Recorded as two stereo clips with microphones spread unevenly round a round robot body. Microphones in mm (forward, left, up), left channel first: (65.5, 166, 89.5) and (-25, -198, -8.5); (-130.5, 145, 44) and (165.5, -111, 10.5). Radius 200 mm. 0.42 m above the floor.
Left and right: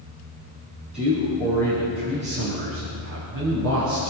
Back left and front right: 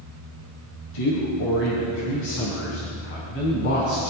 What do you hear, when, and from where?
0.9 s a man speaking: 170° left, 4 m; by 4.1 s 155° right, 4.5 m